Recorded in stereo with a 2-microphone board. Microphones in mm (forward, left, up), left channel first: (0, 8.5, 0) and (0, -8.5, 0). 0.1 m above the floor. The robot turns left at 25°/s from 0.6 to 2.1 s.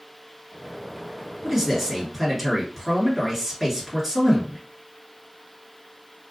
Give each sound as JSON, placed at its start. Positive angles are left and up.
{"t": 1.4, "sound": "a man speaking", "side_deg": -5, "distance_m": 1.5}